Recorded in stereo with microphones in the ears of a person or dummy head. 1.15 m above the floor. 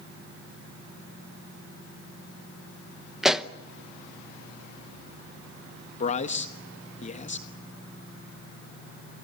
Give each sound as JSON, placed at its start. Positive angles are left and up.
{"t": 3.2, "sound": "a pop", "side_deg": 0, "distance_m": 0.9}
{"t": 6.0, "sound": "a man speaking", "side_deg": 40, "distance_m": 1.1}